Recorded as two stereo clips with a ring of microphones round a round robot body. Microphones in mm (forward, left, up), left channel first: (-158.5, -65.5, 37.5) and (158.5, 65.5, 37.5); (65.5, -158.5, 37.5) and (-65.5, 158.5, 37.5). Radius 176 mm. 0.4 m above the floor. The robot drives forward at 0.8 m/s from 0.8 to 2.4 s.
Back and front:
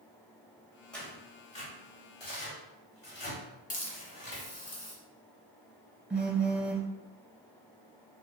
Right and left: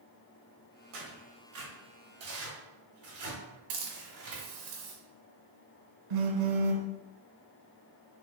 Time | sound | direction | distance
0.9 | tearing paper | 115° left | 1.6 m
3.7 | a hiss | 135° left | 1.2 m
6.1 | a phone buzzing | 110° left | 0.8 m